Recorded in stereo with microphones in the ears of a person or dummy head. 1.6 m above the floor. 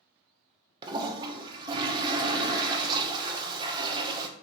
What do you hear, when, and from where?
0.8 s a toilet flushing: 25° right (ahead or behind), 0.6 m